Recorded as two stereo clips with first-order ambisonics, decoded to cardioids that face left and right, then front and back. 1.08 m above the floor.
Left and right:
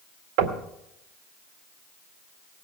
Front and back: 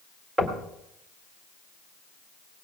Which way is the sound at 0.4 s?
105° right.